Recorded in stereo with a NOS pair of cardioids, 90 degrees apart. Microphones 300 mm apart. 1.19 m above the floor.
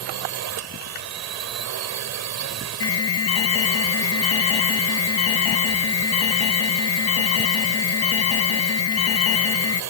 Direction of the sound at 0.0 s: 65° right.